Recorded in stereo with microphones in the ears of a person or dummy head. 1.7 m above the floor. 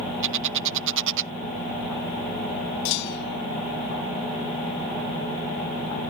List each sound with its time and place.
0.2 s a bird: 60° right (ahead or behind)
2.9 s a clunk: 60° left (ahead or behind)